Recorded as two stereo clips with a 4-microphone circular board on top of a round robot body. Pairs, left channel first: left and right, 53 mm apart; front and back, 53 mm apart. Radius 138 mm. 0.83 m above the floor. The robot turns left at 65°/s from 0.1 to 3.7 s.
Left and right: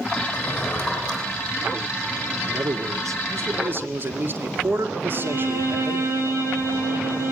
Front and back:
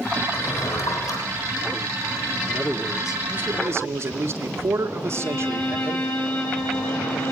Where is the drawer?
60° left, 9 m; by 1.2 s 5° left, 9 m.